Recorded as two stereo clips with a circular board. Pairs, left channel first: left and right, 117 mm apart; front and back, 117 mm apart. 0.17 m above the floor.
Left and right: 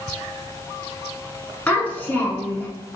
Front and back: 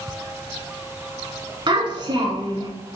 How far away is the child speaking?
About 1.1 m.